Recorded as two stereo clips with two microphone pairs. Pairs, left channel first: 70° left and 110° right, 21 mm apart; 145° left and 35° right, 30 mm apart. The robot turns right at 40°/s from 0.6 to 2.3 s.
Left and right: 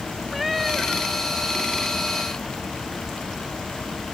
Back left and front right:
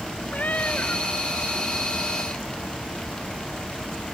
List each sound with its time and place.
0.3 s a cat meowing: 170° left; by 1.1 s 170° right